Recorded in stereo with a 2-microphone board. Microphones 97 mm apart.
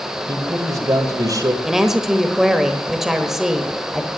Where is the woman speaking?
5° right (ahead or behind), 1.1 m.